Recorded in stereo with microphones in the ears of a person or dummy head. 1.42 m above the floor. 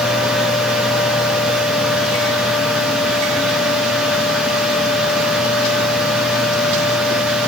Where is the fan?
Centre (ahead or behind), 0.9 m.